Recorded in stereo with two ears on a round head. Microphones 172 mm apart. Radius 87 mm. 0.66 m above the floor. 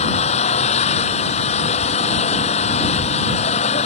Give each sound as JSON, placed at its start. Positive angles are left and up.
{"t": 0.0, "sound": "an engine running", "side_deg": 35}